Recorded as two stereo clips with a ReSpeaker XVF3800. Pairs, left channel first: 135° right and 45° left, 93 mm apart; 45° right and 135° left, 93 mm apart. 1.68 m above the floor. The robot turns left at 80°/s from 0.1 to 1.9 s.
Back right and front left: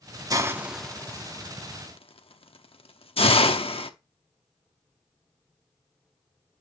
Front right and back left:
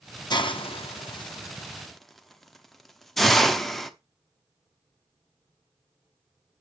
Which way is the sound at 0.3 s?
5° right.